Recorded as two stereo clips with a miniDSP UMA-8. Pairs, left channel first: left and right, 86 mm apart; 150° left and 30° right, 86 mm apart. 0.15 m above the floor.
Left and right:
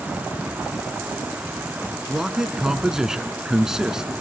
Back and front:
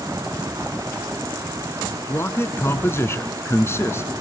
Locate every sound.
2.1 s a man speaking: 170° right, 1.3 m